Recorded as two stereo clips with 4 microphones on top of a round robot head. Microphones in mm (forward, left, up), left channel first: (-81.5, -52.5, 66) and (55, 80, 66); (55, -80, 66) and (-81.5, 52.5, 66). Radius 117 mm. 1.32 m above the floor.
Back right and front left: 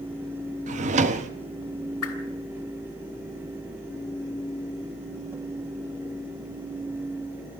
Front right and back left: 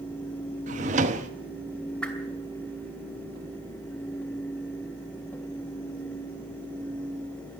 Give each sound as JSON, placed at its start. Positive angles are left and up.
{"t": 0.7, "sound": "a drawer", "azimuth_deg": 85, "distance_m": 0.8}
{"t": 2.0, "sound": "a whoosh", "azimuth_deg": -130, "distance_m": 2.5}